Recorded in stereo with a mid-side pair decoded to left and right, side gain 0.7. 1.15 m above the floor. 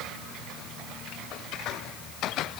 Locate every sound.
Only background noise.